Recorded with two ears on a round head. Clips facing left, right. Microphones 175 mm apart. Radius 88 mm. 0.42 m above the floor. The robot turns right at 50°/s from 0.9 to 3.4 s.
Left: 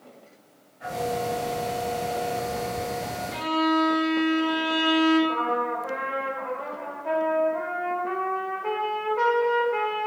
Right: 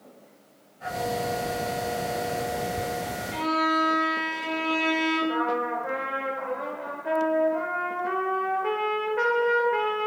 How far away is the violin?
About 2 m.